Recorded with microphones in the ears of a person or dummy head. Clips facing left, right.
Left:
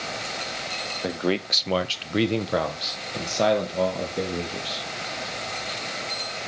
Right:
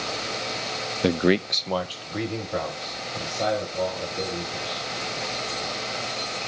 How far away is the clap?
I don't hear a clap.